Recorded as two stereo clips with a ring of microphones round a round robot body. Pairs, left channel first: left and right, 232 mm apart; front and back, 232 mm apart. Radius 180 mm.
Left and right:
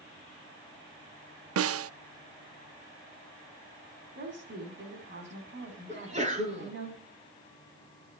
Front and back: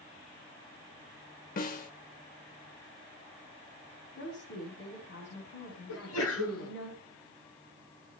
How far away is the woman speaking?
About 4.5 m.